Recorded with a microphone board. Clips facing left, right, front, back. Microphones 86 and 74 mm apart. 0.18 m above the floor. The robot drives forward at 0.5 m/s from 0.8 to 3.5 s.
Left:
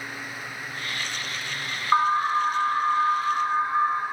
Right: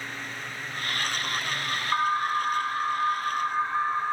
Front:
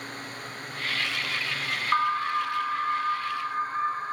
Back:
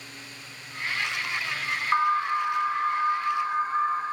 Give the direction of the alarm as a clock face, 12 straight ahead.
9 o'clock.